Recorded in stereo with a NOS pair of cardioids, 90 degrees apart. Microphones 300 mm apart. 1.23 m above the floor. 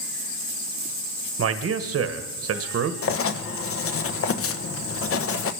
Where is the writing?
50° left, 1.1 m.